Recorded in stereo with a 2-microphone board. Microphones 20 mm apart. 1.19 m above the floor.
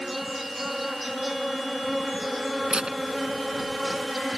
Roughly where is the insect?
Centre.